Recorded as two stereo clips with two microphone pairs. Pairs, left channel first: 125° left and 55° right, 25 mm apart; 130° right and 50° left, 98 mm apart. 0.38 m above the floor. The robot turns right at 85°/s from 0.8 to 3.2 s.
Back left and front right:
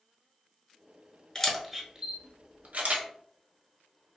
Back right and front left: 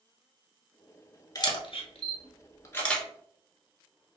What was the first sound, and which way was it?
A camera shutter, 175° right.